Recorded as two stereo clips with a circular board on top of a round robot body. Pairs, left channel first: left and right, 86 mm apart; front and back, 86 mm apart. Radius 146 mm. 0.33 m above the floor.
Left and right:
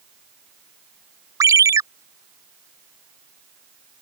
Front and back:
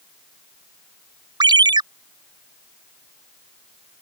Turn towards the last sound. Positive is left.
turn(degrees=-145)